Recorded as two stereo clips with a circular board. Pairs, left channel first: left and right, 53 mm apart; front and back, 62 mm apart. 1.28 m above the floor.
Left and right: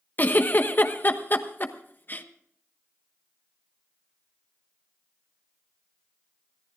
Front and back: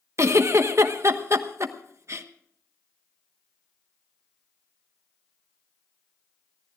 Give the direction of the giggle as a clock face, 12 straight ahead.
7 o'clock.